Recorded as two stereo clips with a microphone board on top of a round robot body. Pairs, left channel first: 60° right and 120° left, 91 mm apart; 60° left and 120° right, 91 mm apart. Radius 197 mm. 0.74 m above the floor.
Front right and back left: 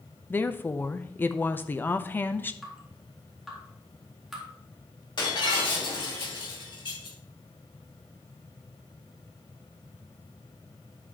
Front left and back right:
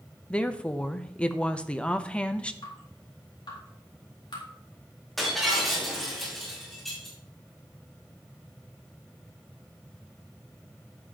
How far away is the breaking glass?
About 3.5 m.